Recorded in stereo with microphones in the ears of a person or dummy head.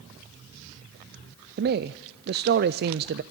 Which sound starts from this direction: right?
A man speaking, at 1.6 s.